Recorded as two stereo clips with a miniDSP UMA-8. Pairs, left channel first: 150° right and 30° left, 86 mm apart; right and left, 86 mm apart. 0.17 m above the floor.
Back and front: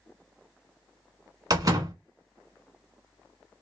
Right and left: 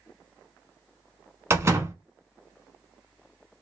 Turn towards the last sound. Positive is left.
turn(degrees=45)